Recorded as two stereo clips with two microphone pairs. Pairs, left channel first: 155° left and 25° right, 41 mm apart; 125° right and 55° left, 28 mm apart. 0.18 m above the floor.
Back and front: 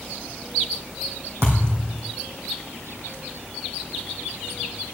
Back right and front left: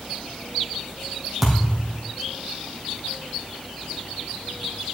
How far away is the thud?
About 3 m.